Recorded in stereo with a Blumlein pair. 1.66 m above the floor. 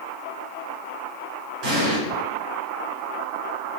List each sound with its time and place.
1.6 s an explosion: 25° right, 1.9 m